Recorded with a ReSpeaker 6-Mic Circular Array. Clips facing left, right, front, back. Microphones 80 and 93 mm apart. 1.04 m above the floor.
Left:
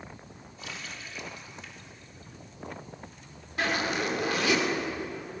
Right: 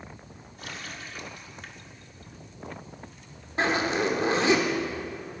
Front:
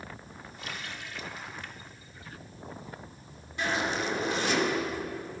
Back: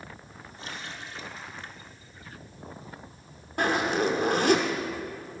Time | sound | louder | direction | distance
0.6 | a running tap | right 2 dB, back 1 dB | 125° right | 1.7 m
3.6 | a zipper | right 4 dB, back 5 dB | 150° right | 2.5 m